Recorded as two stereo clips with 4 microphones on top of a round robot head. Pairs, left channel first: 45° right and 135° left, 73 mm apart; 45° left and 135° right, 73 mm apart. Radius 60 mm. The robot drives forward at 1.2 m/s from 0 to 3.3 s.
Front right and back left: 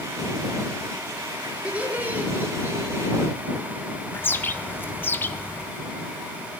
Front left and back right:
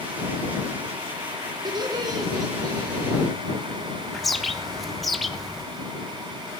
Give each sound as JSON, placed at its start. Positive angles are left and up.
{"t": 1.6, "sound": "laughter", "azimuth_deg": -155, "distance_m": 2.5}
{"t": 4.1, "sound": "a bird", "azimuth_deg": -45, "distance_m": 0.9}